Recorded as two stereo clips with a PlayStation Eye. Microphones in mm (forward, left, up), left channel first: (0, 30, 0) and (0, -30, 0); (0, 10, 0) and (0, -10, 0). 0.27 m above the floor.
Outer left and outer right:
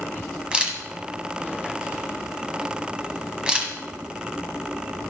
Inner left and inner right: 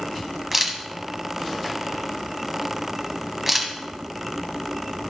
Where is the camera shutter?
15° right (ahead or behind), 1.6 m.